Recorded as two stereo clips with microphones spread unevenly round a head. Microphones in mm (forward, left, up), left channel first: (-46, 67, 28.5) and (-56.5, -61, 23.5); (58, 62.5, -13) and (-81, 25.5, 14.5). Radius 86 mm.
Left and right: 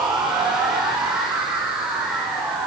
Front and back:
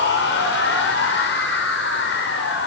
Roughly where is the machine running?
Ahead.